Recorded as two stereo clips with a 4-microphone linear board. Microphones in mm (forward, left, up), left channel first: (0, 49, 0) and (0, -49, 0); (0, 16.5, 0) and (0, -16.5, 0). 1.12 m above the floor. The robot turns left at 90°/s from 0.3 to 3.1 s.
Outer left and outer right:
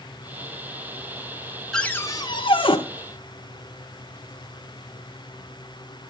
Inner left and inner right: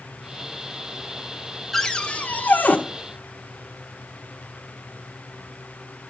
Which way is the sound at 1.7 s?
175° left.